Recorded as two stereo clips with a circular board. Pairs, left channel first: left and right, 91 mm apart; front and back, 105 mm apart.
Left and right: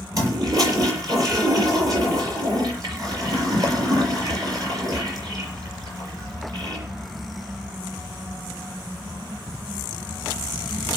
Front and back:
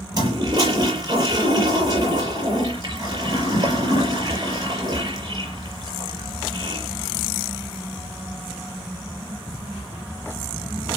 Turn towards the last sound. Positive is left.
turn(degrees=-135)